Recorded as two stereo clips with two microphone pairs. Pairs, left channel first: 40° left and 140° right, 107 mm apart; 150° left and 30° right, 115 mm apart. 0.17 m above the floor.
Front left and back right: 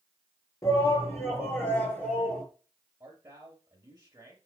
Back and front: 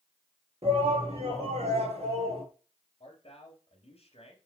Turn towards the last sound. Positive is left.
turn(degrees=165)